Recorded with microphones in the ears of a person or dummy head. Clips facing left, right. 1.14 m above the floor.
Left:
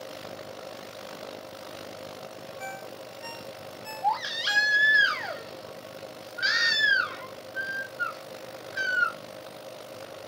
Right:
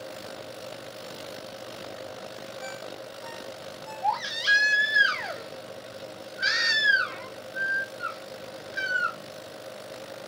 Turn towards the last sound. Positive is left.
turn(degrees=0)  # may be behind; listen again after turning